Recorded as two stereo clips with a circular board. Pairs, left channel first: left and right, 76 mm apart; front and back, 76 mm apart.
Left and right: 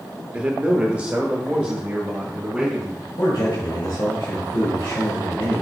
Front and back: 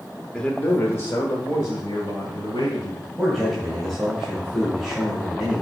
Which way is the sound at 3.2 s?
90° left.